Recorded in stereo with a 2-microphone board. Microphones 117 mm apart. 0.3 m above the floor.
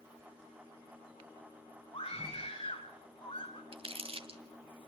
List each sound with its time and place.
1.9 s a scream: 45° left (ahead or behind), 4 m
3.7 s crumpling: 55° right (ahead or behind), 1.8 m